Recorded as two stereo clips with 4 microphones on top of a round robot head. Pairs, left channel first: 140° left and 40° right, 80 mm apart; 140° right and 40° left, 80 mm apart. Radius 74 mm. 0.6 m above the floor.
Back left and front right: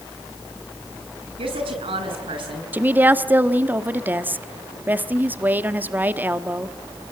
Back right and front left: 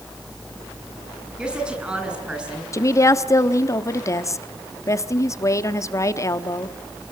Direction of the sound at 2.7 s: 100° right.